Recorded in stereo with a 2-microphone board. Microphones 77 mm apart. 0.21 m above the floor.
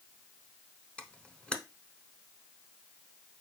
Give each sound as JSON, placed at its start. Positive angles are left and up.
{"t": 1.0, "sound": "a camera shutter", "side_deg": 10, "distance_m": 0.8}